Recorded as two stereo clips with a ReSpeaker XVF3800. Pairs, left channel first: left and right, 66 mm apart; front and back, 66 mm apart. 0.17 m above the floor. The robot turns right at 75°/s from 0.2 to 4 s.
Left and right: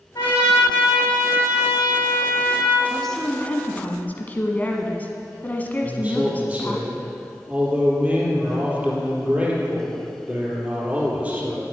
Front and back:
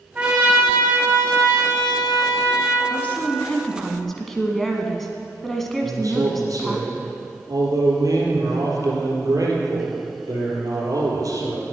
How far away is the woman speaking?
About 1.2 m.